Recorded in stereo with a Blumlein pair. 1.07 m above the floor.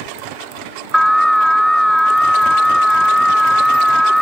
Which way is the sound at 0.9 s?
Straight ahead.